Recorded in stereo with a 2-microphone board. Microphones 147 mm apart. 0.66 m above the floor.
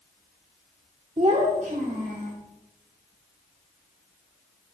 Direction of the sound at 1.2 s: 45° right (ahead or behind).